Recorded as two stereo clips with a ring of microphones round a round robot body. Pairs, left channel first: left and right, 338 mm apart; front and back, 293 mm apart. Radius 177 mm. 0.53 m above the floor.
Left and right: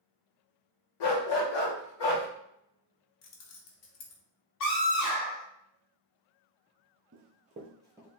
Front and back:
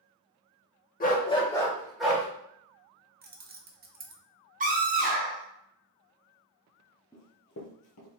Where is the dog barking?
65° left, 0.8 m; by 2.3 s 95° left, 1.3 m.